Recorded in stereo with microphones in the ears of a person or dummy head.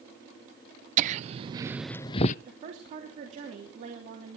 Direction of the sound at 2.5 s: 45° right (ahead or behind).